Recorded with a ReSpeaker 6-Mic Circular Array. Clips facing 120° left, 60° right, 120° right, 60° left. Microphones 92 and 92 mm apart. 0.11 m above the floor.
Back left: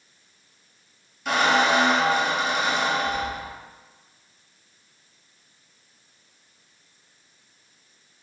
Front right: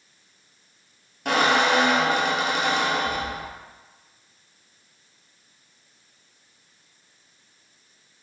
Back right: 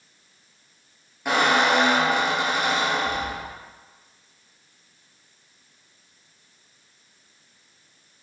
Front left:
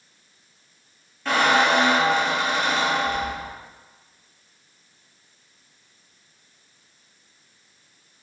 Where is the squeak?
50° right, 0.6 m.